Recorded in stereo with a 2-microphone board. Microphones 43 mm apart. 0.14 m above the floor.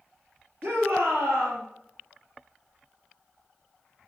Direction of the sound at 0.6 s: 65° right (ahead or behind).